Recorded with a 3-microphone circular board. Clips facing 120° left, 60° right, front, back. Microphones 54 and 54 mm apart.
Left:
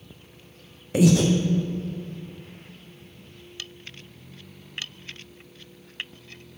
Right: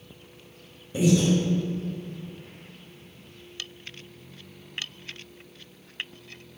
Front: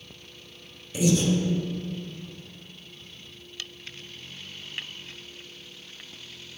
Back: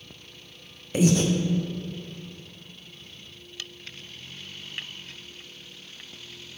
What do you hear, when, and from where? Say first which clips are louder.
0.9 s breathing: left 3 dB, back 2 dB; 135° left, 0.6 m